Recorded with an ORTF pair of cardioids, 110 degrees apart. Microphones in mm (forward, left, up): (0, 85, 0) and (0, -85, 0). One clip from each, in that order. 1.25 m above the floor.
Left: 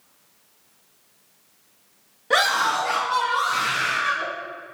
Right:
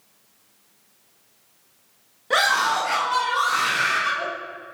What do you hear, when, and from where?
2.3 s a scream: 5° left, 1.6 m; by 4.3 s 20° right, 4 m